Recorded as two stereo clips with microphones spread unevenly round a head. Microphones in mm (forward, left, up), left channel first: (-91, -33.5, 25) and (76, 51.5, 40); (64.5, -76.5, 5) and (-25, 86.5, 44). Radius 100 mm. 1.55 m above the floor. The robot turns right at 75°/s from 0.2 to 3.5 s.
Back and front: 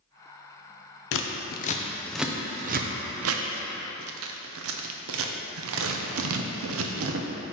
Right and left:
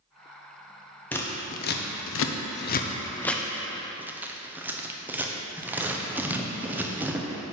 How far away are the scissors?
About 0.6 m.